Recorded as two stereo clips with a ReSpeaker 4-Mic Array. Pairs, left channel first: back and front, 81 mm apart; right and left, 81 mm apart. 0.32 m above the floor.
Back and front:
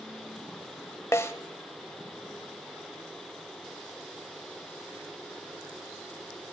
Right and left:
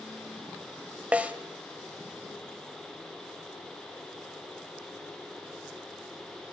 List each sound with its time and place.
1.1 s a snare drum: 150° left, 1.5 m